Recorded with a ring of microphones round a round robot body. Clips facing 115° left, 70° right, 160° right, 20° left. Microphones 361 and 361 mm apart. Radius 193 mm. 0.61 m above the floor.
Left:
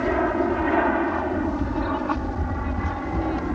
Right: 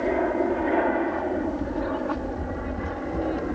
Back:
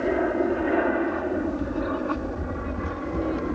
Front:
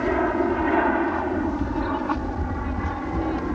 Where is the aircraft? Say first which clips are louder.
Left 1 dB, front 1 dB; 75° left; by 3.5 s 85° left.